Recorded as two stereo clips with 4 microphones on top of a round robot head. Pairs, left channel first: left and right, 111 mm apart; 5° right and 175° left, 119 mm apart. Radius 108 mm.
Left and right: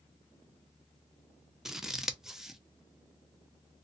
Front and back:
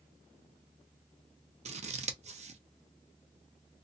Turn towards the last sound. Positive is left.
turn(degrees=-175)